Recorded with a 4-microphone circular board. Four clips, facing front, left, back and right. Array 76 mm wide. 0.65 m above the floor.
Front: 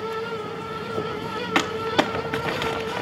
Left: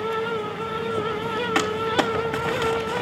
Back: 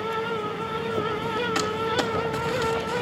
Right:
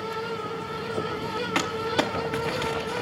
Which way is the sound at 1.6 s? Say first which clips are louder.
Left 3 dB, front 3 dB; 15° left.